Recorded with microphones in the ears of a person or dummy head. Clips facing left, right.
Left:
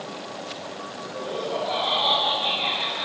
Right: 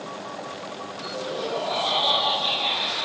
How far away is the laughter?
About 8 m.